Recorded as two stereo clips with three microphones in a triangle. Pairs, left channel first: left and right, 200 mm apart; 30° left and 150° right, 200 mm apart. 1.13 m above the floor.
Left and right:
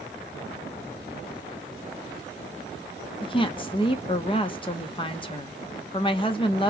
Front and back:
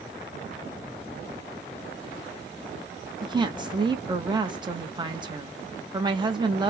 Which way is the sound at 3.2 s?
150° left.